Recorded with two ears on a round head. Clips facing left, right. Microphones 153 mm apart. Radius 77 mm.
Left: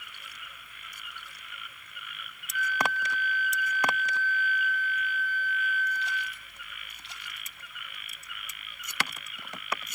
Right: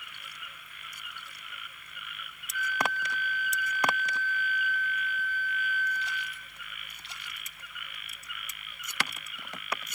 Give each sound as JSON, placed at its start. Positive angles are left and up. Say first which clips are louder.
{"t": 2.5, "sound": "a flute", "louder": "left 1 dB", "side_deg": -30, "distance_m": 3.0}